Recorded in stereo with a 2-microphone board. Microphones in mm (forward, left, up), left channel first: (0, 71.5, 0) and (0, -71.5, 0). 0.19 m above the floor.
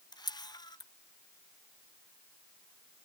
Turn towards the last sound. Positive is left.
turn(degrees=30)  # may be behind; listen again after turning